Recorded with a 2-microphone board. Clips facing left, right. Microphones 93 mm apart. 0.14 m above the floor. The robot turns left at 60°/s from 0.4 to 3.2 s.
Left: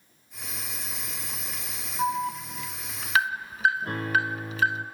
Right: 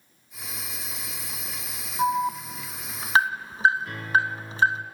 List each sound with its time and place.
2.0 s an alarm: 15° right (ahead or behind), 0.9 m; by 4.8 s 30° right (ahead or behind), 0.9 m
3.8 s a piano: 40° left (ahead or behind), 2 m